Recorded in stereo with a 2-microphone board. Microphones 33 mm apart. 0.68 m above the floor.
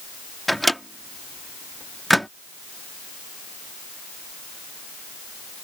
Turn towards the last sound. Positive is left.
turn(degrees=0)  # may be behind; listen again after turning